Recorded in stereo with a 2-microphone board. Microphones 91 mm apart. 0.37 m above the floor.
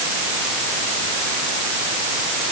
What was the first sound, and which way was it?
Only background noise.